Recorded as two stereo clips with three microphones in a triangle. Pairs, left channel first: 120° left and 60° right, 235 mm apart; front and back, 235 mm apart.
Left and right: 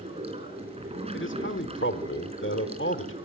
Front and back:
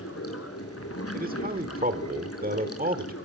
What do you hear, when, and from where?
0.0 s running water: 5° left, 3 m
1.1 s a man speaking: 135° left, 1.4 m